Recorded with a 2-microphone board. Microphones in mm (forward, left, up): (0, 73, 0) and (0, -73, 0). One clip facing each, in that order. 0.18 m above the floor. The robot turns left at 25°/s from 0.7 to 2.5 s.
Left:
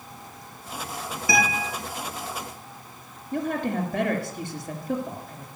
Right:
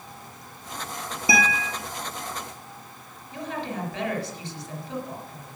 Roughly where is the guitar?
Right.